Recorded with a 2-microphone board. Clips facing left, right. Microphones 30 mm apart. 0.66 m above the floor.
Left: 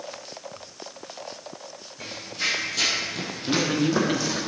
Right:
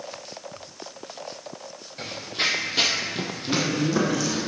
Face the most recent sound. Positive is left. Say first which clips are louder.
# left 2 dB
turn(degrees=45)  # may be behind; listen again after turning